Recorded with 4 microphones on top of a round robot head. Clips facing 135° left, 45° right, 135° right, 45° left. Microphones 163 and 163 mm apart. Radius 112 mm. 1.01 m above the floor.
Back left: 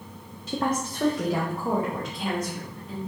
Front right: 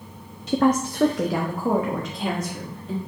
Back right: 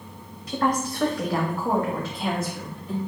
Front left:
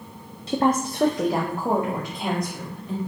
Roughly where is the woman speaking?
Ahead.